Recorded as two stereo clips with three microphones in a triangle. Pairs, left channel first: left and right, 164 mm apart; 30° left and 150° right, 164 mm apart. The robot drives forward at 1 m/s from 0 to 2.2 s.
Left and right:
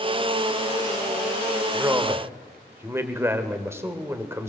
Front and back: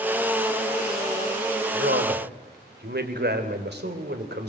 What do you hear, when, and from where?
1.7 s a man speaking: 165° right, 2.5 m